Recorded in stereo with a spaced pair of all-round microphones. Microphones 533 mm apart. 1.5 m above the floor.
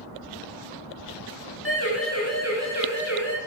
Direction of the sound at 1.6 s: 25° left (ahead or behind).